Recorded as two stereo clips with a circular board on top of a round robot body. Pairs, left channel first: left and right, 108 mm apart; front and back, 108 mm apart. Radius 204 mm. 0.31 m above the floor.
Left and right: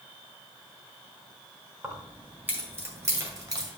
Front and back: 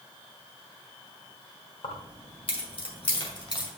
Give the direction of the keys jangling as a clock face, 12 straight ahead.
12 o'clock.